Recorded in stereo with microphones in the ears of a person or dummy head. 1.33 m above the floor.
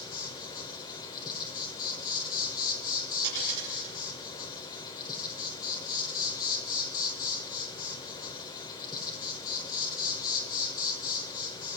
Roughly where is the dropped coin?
Right.